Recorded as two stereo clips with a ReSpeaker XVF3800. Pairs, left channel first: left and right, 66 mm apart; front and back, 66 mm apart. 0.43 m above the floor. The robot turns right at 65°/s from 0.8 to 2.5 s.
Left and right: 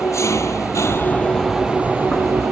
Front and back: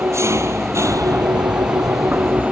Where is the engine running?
135° left; by 2.5 s 115° right.